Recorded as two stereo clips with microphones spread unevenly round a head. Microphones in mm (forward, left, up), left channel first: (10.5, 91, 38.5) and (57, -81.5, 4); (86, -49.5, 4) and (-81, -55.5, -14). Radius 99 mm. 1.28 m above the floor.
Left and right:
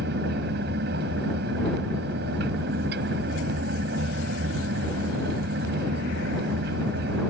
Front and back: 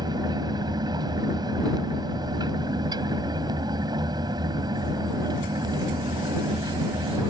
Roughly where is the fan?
Behind right.